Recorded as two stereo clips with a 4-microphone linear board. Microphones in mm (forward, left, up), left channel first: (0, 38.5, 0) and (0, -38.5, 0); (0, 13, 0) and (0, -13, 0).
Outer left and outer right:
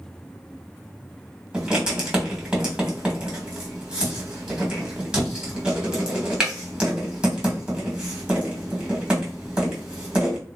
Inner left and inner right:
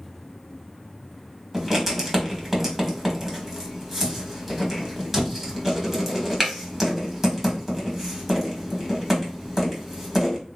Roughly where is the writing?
Centre.